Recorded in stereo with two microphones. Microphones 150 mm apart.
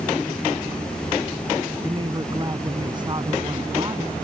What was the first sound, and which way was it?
A woman speaking, 30° right (ahead or behind).